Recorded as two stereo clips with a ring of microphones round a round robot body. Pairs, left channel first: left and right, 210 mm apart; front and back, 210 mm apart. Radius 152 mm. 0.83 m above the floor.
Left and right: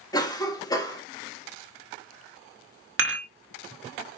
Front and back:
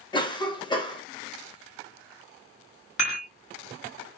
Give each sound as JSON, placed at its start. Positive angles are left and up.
{"t": 0.1, "sound": "a cough", "azimuth_deg": 40, "distance_m": 0.9}
{"t": 3.0, "sound": "dishes clattering", "azimuth_deg": -65, "distance_m": 0.9}